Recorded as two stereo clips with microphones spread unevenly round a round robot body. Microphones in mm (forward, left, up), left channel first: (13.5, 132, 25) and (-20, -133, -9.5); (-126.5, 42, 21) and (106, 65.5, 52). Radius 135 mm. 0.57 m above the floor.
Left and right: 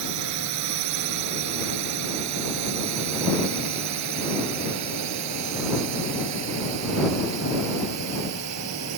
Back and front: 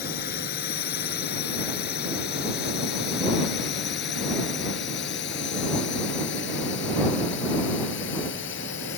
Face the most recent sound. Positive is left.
turn(degrees=-125)